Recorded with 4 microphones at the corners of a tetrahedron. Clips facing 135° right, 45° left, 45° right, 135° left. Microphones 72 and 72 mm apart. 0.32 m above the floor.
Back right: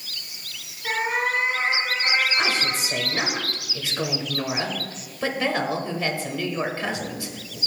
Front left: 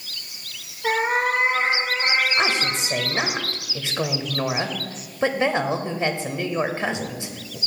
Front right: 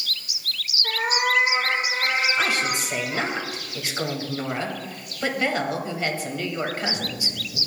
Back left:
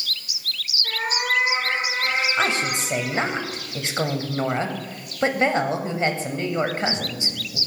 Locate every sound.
0.8 s a cat meowing: 25° left, 5.5 m; by 3.4 s 15° left, 6.5 m
2.4 s a woman speaking: 95° left, 1.2 m